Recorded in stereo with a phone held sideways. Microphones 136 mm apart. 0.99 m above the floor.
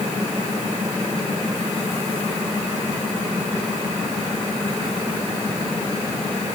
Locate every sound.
Only background noise.